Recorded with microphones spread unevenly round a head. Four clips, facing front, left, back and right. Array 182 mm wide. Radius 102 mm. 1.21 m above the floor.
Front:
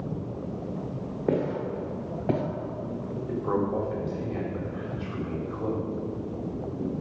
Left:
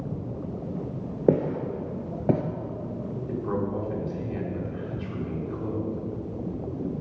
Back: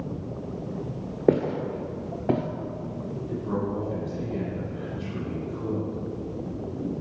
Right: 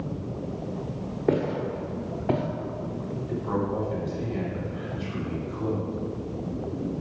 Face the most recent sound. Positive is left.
turn(degrees=10)